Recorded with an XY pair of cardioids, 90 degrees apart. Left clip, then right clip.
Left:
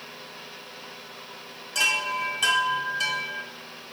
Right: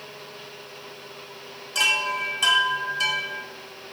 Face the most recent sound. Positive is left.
turn(degrees=-15)